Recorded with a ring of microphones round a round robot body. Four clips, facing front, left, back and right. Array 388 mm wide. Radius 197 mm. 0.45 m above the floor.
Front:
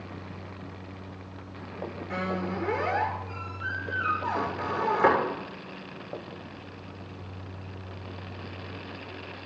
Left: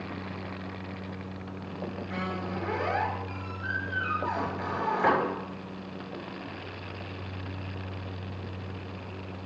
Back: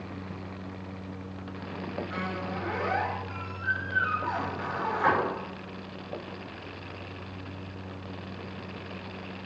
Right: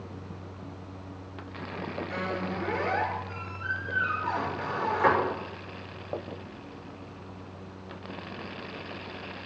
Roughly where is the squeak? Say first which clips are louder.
Right 1 dB, front 3 dB; ahead.